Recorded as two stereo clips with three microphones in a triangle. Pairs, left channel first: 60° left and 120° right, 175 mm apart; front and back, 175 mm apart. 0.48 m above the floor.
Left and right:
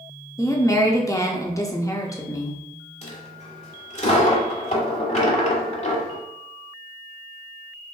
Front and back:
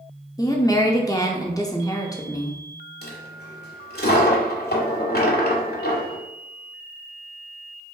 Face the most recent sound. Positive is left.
turn(degrees=10)